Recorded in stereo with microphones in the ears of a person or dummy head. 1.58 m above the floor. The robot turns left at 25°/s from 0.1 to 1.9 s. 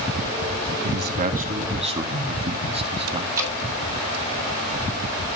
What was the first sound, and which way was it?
A man speaking, 60° right (ahead or behind).